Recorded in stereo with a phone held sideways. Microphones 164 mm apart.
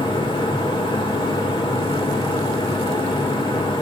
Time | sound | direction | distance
0.0 | a fan | 25° left (ahead or behind) | 2.5 m